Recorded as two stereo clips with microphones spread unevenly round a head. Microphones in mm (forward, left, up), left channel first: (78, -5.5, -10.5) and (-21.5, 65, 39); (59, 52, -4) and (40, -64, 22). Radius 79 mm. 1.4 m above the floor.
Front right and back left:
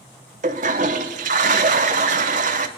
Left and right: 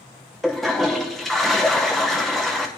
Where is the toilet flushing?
175° left, 0.6 m.